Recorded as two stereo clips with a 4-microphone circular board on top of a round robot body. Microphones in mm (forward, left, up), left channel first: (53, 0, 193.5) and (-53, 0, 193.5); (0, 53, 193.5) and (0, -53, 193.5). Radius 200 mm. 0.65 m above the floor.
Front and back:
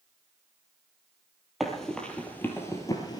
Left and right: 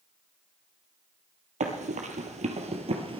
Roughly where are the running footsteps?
Right.